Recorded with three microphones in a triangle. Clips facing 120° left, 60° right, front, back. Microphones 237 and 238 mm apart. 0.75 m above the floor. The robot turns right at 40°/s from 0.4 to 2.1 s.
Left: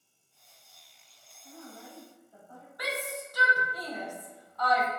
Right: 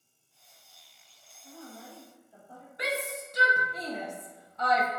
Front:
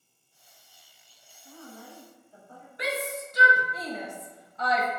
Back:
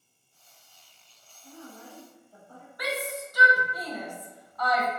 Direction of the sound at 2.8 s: 25° right.